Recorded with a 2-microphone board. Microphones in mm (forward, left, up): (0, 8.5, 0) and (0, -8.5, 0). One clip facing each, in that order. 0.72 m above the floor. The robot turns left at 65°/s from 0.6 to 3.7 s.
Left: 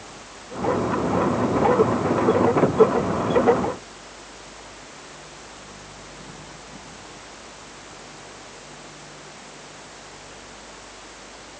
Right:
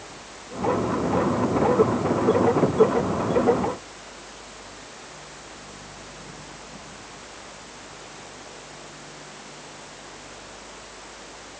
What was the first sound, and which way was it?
Only background noise.